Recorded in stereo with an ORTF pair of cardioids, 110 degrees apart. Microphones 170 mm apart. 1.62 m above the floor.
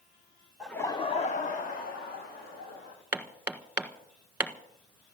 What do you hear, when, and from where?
0.6 s laughter: 5° right, 0.7 m; by 3.0 s 65° left, 3 m
3.1 s hammering: 10° right, 1.4 m